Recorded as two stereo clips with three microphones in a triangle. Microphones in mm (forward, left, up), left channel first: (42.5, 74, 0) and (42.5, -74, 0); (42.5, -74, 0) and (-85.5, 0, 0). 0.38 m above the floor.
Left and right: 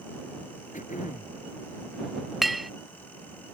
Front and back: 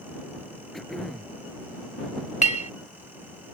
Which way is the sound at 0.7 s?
60° left.